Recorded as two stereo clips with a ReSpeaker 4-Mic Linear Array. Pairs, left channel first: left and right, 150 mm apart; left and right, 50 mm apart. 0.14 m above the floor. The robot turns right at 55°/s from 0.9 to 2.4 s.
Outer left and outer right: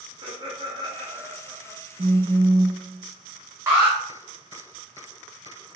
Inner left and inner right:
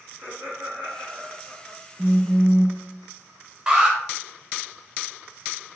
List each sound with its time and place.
0.2 s laughter: 50° right, 1.9 m; by 1.8 s 5° right, 1.9 m
2.0 s a phone buzzing: 55° right (ahead or behind), 0.5 m; by 2.8 s 45° right (ahead or behind), 0.5 m
3.7 s an alarm: 15° right (ahead or behind), 1.4 m